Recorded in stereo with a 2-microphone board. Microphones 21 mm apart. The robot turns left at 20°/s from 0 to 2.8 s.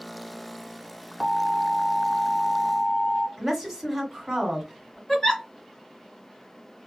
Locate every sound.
1.2 s an alarm: 155° right, 1.6 m; by 3.3 s 175° left, 1.6 m
3.4 s a woman speaking: 10° right (ahead or behind), 1.5 m
5.1 s a giggle: 30° left (ahead or behind), 1.9 m